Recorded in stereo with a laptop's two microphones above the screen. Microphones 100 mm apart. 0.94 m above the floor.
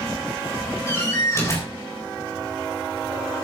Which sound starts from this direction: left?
A door slam, at 0.9 s.